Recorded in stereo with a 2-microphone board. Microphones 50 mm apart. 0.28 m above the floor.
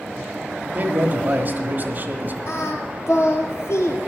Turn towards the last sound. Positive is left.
turn(degrees=60)  # may be behind; listen again after turning